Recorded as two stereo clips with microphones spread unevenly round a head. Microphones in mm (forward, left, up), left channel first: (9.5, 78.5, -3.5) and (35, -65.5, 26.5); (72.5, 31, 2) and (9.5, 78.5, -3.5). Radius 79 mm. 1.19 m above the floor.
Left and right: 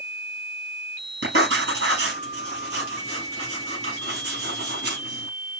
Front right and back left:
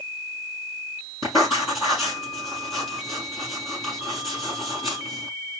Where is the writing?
105° right, 4.5 m.